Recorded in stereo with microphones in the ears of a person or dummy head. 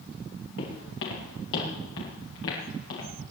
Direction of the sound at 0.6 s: 70° left (ahead or behind).